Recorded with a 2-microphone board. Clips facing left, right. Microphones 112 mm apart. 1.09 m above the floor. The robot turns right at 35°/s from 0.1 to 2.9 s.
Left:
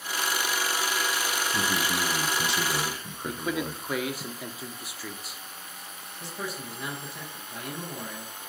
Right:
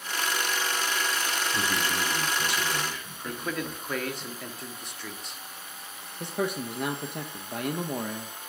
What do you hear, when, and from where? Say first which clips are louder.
1.5 s a man speaking: left 1 dB; 5° left, 0.7 m; by 4.2 s 55° left, 0.7 m
3.2 s a man speaking: left 2 dB; 5° left (ahead or behind), 0.5 m
6.2 s a man speaking: right 7 dB; 60° right (ahead or behind), 0.6 m